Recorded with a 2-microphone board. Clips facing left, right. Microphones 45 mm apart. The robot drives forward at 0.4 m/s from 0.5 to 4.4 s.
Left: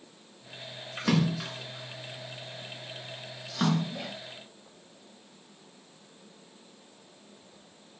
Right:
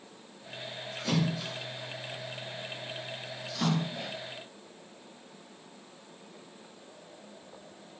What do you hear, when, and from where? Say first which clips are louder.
1.0 s a splash: left 4 dB; 75° left (ahead or behind), 2.5 m; by 4.1 s 55° left (ahead or behind), 3 m